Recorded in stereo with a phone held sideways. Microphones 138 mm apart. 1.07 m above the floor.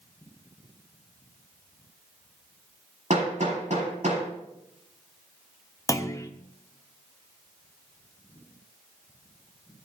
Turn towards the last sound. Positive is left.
turn(degrees=25)  # may be behind; listen again after turning